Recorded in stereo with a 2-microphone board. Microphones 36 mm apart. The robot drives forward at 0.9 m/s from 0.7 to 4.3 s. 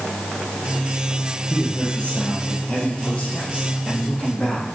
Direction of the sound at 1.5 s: 40° left (ahead or behind).